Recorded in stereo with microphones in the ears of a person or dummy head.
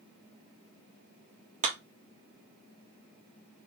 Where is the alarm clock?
No alarm clock in this recording.